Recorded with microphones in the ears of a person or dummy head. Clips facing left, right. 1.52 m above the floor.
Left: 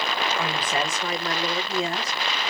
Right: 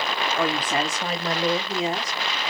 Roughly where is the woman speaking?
Right.